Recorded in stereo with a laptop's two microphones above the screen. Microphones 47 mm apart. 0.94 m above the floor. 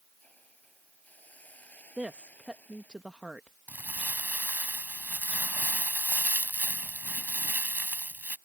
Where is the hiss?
35° left (ahead or behind).